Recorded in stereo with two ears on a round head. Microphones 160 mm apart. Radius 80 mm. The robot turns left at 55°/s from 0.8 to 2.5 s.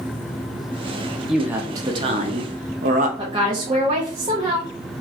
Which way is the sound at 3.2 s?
30° right (ahead or behind).